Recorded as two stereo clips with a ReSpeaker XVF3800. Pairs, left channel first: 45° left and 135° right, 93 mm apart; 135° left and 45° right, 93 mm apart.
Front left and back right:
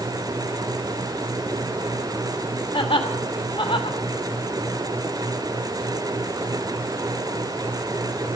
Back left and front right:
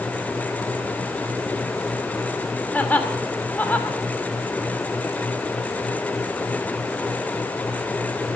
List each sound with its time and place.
2.7 s laughter: 65° left, 3 m